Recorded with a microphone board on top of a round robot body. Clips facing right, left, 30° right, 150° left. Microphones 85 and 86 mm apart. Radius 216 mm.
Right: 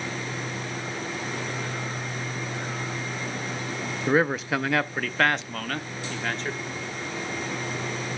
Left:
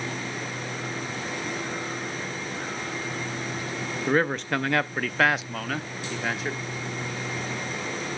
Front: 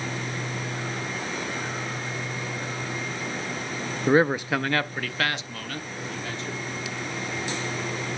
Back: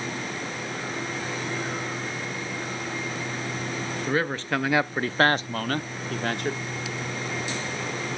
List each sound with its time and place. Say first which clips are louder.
4.1 s a man speaking: right 1 dB, front 7 dB; 10° right, 0.8 m; by 6.6 s 175° left, 1.6 m